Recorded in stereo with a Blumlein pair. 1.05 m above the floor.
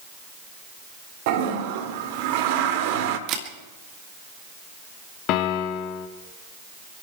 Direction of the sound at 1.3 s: 45° right.